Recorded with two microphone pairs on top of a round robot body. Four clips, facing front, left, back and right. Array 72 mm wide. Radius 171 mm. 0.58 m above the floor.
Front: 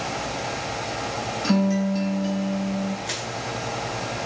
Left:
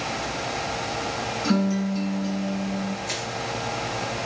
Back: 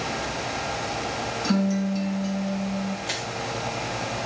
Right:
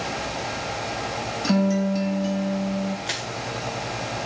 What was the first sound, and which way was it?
A guitar, 40° right.